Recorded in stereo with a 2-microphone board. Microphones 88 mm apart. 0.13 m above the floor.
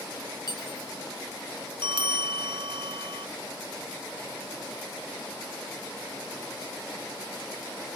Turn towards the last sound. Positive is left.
turn(degrees=-65)  # may be behind; listen again after turning